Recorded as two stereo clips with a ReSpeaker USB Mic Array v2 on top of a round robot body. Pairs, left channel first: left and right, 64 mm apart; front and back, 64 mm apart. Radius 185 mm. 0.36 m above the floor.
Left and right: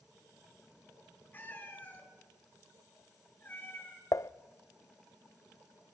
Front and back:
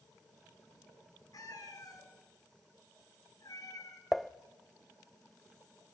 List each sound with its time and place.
1.3 s a cat meowing: 30° left, 3.5 m
4.1 s dishes clattering: 90° left, 0.7 m